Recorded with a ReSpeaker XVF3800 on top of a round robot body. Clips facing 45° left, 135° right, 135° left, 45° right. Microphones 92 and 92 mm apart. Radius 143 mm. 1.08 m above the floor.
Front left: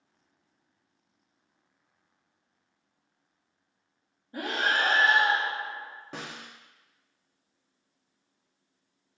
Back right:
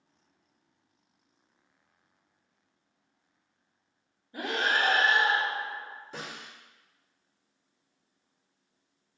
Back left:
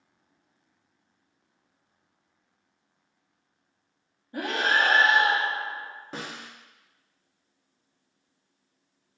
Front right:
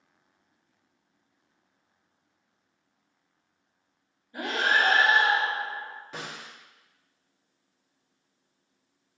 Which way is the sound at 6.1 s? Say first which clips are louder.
Front left 2 dB, back left 3 dB; 80° left.